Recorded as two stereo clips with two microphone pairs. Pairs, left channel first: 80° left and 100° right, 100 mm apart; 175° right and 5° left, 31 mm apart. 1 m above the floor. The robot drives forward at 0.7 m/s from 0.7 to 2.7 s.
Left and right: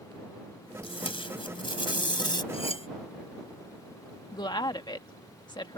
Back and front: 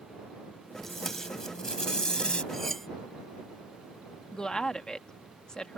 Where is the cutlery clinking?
105° left.